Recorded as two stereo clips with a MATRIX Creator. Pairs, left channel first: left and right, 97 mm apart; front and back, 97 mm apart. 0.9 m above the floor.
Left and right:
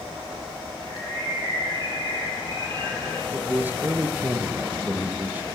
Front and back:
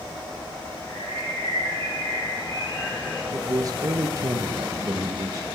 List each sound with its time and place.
0.9 s a bird: 55° right, 9 m
3.3 s a man speaking: 150° right, 0.9 m